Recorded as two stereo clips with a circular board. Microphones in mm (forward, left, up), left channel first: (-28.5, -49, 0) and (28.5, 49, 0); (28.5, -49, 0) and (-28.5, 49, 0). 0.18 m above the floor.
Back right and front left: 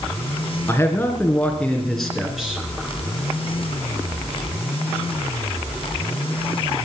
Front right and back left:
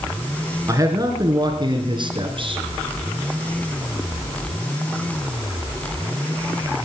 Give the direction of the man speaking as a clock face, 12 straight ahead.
6 o'clock.